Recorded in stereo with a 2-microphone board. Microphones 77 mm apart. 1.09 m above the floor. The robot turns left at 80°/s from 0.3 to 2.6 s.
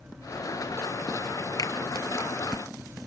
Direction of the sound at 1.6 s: 55° left (ahead or behind).